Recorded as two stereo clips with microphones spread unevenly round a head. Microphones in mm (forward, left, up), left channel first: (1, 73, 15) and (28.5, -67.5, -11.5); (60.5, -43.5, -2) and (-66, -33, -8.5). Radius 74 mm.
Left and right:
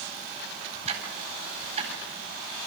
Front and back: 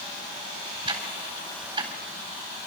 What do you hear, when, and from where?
0.9 s ticking: 130° right, 4 m